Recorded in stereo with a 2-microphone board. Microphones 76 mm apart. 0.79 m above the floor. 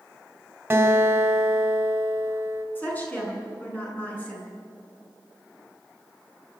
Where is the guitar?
30° right (ahead or behind), 3 m.